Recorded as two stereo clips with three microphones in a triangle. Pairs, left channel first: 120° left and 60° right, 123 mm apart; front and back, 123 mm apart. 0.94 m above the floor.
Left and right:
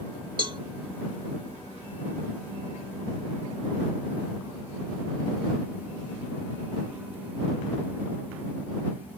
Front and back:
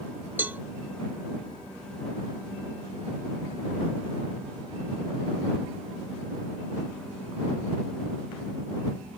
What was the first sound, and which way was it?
A cowbell, 105° right.